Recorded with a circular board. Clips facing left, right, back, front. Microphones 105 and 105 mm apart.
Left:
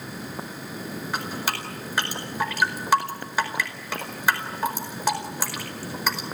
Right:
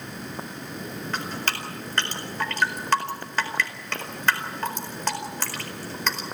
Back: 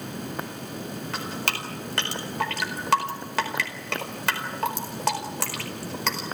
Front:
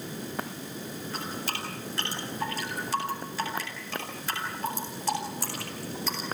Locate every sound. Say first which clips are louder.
1.1 s dripping: left 1 dB, back 4 dB; 170° left, 4.5 m